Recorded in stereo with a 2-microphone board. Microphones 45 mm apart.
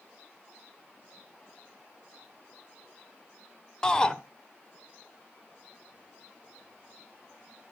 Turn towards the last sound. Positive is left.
turn(degrees=20)  # may be behind; listen again after turning